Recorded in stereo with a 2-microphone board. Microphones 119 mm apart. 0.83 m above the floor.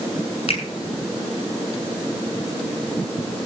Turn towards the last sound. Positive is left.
turn(degrees=60)  # may be behind; listen again after turning